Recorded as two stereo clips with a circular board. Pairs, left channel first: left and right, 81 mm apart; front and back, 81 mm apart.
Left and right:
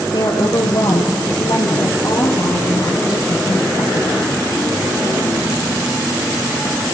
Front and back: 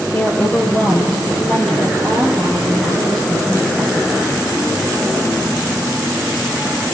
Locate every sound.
0.1 s a woman speaking: 55° left, 3.5 m; by 4.2 s 95° left, 3 m